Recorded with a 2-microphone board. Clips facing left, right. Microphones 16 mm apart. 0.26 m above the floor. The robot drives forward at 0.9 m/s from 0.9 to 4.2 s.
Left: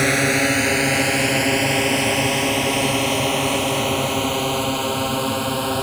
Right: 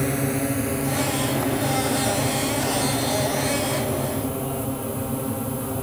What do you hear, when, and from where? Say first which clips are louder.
0.0 s a drone: left 7 dB; 45° left (ahead or behind); by 5.8 s 65° left (ahead or behind)